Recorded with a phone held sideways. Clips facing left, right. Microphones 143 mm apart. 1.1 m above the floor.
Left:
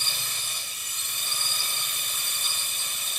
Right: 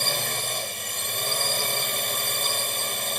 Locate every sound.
0.0 s a drone: 60° right (ahead or behind)